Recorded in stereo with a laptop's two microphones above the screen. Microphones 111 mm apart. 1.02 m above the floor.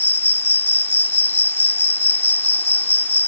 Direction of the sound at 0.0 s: 20° left (ahead or behind).